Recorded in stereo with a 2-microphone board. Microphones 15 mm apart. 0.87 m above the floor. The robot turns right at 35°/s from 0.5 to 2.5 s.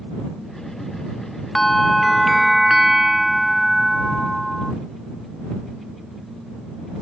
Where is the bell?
165° left; by 4.7 s 160° right.